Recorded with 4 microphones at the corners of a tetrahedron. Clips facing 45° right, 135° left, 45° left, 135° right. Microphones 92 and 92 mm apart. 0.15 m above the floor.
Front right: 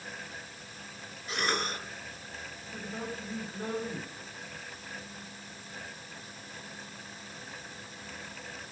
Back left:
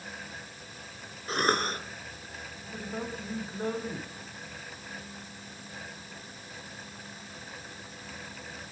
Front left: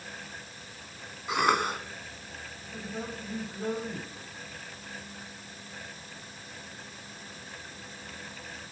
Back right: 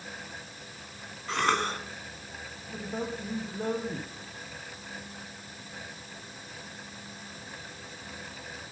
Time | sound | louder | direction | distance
1.3 | a cough | back left 5 dB, front left 2 dB | 120° left | 1.8 m
2.7 | a man speaking | back left 2 dB, back right 3 dB | 155° right | 7 m